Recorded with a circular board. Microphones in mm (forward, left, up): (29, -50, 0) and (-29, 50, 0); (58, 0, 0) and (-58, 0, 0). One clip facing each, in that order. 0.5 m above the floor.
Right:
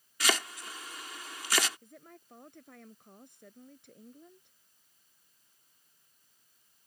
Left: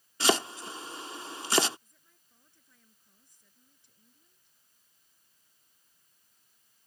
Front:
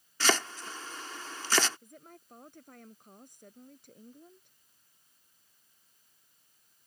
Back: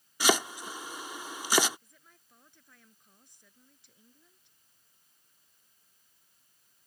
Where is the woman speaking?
40° right.